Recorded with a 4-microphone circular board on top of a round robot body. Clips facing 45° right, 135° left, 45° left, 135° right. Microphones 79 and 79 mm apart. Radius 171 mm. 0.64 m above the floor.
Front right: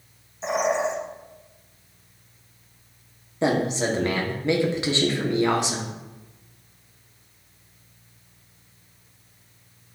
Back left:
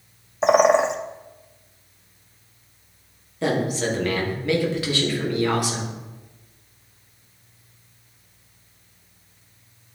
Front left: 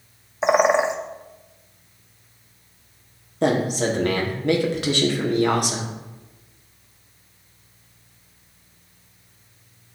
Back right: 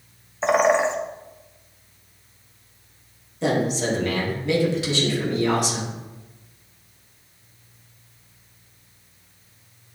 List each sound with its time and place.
0.4 s a bird: 120° left, 0.8 m
3.4 s a man speaking: 20° left, 2.0 m